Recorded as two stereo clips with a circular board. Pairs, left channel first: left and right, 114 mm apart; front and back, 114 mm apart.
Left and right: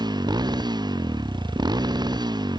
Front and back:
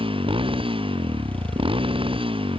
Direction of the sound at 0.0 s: 140° right.